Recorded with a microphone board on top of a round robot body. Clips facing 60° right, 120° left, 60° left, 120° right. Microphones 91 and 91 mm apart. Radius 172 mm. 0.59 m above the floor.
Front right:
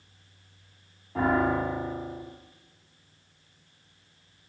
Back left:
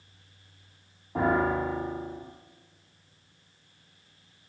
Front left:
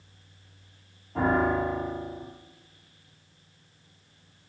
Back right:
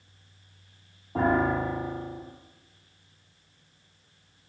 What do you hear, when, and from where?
1.1 s a piano: 170° right, 3.5 m